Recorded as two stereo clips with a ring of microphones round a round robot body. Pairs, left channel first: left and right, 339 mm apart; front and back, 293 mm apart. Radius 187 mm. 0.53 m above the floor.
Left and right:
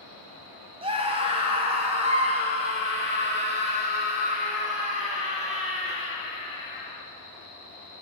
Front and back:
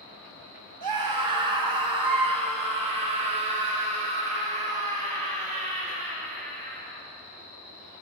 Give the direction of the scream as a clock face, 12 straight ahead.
5 o'clock.